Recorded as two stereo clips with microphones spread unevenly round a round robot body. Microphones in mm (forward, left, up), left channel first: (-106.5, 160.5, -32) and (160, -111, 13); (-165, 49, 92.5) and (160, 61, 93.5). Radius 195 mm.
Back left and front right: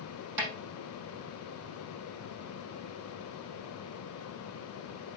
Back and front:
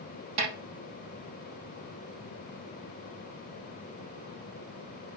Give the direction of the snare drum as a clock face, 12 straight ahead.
12 o'clock.